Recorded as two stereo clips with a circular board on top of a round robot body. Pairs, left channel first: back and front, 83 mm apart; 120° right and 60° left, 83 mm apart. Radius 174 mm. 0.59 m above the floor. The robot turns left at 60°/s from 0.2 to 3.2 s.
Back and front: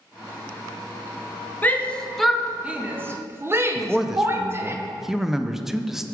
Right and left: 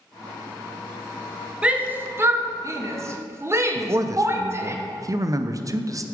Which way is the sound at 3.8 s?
85° left.